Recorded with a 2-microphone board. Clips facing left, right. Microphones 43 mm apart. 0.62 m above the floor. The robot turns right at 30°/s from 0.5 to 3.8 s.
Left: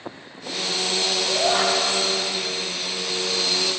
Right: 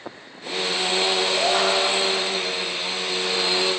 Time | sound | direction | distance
1.3 | a shout | 5° left (ahead or behind) | 1.4 m